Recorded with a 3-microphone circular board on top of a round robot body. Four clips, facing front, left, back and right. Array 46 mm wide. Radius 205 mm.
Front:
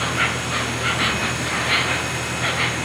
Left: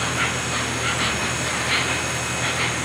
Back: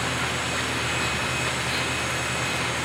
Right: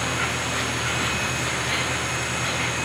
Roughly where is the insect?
Ahead.